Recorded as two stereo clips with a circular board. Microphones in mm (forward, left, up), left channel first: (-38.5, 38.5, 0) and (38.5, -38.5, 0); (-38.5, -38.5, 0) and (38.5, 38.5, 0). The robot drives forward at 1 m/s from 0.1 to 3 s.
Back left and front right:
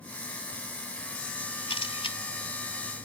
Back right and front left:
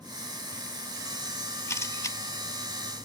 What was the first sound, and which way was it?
A camera shutter, 160° left.